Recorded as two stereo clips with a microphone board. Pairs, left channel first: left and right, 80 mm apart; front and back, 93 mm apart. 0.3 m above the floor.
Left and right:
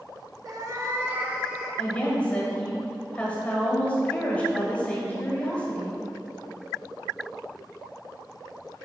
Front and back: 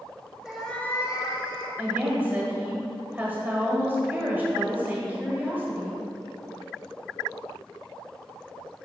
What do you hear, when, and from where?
0.5 s a cat meowing: 95° right, 0.8 m; by 1.7 s 5° right, 1.0 m
1.8 s a woman speaking: 135° left, 1.4 m